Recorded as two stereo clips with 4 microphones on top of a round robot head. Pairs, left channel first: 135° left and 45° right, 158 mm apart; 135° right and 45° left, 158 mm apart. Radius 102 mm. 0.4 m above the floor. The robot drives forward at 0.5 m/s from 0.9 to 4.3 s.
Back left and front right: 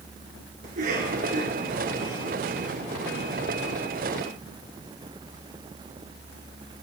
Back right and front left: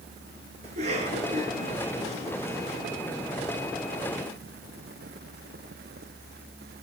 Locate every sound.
0.6 s a cough: 5° right, 8 m